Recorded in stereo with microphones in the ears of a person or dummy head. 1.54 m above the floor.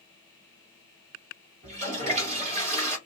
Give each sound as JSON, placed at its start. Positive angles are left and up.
{"t": 1.6, "sound": "a toilet flushing", "side_deg": -40, "distance_m": 1.4}